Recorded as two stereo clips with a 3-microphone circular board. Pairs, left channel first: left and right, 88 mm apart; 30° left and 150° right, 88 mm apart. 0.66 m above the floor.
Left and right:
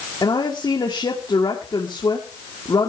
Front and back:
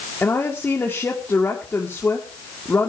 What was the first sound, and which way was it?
A woman speaking, 90° left.